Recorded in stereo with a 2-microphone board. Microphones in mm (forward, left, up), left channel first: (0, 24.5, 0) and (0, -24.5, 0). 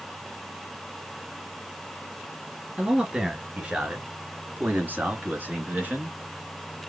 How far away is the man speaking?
About 2.5 m.